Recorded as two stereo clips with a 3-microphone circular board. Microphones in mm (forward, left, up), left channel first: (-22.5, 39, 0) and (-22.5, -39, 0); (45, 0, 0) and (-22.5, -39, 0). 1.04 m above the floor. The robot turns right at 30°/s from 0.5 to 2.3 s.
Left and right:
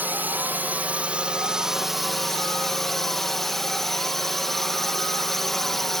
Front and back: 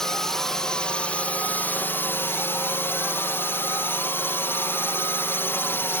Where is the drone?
45° right; by 6.0 s 5° left.